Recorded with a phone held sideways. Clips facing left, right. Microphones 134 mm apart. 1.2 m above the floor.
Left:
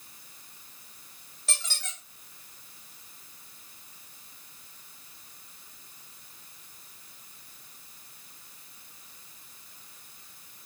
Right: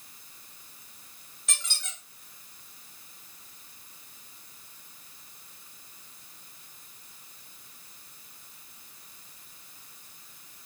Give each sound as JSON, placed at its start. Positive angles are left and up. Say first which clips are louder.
{"t": 1.5, "sound": "a squeak", "louder": "left 2 dB", "side_deg": 30, "distance_m": 1.3}